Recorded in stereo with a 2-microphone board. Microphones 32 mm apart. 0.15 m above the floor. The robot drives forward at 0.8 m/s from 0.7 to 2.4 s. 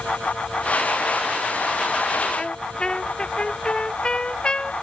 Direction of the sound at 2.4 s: 30° left (ahead or behind).